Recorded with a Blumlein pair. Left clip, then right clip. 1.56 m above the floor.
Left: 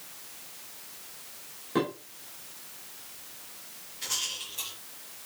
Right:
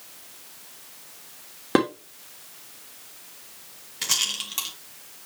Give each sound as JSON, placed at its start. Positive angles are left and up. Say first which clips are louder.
{"t": 1.8, "sound": "dishes clattering", "louder": "right 7 dB", "azimuth_deg": -45, "distance_m": 3.0}
{"t": 4.0, "sound": "a rattle", "louder": "right 7 dB", "azimuth_deg": -55, "distance_m": 2.5}